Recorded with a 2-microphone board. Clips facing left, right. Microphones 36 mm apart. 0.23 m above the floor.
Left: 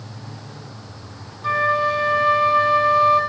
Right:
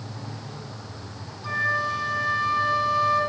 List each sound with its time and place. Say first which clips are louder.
1.4 s a flute: left 6 dB; 50° left (ahead or behind), 0.7 m